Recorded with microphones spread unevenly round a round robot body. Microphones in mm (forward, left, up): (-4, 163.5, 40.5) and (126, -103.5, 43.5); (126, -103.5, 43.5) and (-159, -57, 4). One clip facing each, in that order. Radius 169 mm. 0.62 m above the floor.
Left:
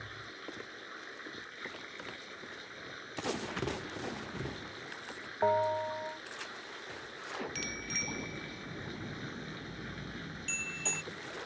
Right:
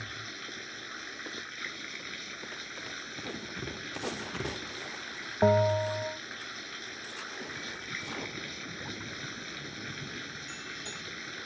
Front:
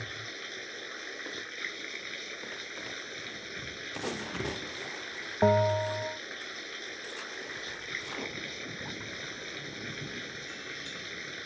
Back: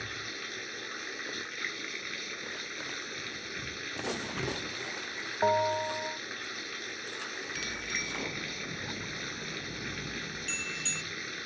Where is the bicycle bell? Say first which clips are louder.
Left 2 dB, back 3 dB; 165° left.